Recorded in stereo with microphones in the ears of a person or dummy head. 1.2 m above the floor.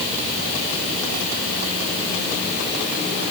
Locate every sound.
Only background noise.